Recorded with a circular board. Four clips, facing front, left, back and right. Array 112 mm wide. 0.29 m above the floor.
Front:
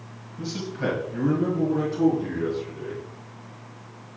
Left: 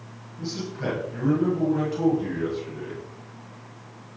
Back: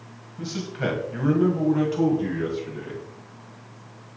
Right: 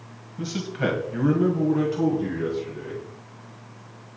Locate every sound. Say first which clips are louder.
0.4 s a man speaking: right 4 dB, even; 95° right, 1.7 m; by 3.0 s 170° left, 3 m